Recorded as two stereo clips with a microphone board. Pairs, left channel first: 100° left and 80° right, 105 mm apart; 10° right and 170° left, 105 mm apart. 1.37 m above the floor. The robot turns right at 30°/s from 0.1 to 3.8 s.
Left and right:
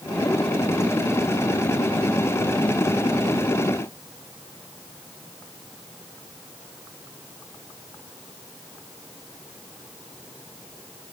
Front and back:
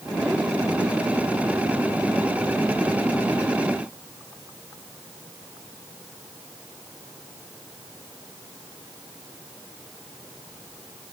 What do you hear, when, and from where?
Only background noise.